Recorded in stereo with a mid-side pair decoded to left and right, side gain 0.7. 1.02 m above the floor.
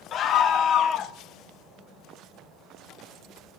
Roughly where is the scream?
Ahead left.